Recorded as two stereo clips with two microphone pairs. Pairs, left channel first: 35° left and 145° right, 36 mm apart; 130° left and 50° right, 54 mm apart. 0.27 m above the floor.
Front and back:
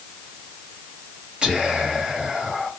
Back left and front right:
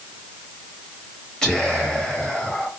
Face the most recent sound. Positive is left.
turn(degrees=-165)